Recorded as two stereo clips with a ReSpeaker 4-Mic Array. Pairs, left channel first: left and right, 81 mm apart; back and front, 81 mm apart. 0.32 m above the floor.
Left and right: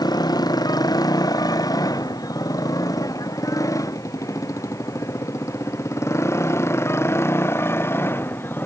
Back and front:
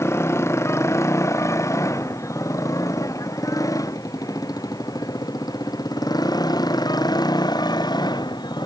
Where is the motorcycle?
125° left; by 8.7 s 150° left.